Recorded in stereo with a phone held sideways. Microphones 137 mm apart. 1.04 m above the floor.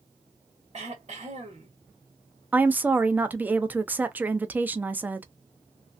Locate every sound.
0.7 s throat clearing: 55° right (ahead or behind), 1.3 m
2.5 s a woman speaking: 10° right (ahead or behind), 0.5 m